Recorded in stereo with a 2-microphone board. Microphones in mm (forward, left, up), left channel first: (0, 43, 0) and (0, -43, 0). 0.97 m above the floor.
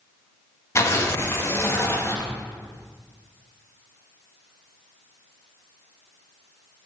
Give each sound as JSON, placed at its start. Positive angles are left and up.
{"t": 0.8, "sound": "tearing paper", "side_deg": 30, "distance_m": 1.1}